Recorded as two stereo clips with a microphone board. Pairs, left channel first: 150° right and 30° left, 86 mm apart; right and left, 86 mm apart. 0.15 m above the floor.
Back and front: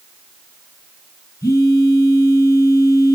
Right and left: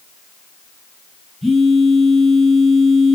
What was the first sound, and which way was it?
A phone buzzing, straight behind.